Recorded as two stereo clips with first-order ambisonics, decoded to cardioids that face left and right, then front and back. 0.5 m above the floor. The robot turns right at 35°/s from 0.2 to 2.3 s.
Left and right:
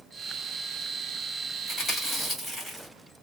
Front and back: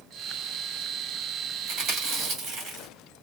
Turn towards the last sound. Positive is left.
turn(degrees=180)